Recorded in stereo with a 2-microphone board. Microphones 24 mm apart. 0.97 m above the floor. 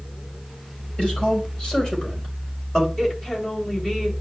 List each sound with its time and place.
1.0 s a man speaking: 35° left (ahead or behind), 5.5 m; by 2.9 s 25° left (ahead or behind), 4 m
3.0 s a woman speaking: 20° left (ahead or behind), 4 m